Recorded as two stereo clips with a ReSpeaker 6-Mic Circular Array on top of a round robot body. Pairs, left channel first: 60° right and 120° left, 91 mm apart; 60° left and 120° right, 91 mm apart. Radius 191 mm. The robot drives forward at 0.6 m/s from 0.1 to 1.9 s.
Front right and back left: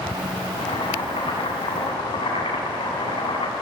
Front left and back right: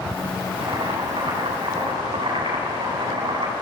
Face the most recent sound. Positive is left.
turn(degrees=-85)